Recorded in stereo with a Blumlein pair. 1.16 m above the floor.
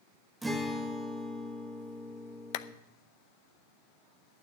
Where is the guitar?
5° right, 1.8 m.